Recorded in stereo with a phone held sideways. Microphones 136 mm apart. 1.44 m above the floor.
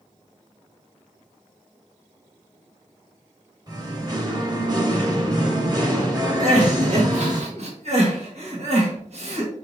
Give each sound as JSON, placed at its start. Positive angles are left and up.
{"t": 3.7, "sound": "singing", "side_deg": -30, "distance_m": 1.0}
{"t": 6.4, "sound": "crying", "side_deg": -50, "distance_m": 1.2}